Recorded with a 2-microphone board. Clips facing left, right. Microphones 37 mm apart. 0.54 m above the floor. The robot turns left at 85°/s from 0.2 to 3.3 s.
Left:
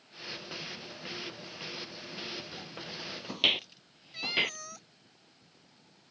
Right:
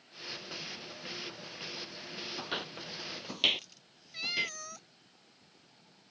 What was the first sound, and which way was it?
Footsteps, 65° right (ahead or behind).